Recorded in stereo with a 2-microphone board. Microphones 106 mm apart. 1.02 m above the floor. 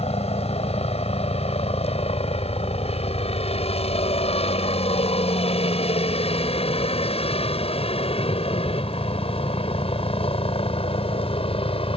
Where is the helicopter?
75° left (ahead or behind); by 12.0 s 60° left (ahead or behind).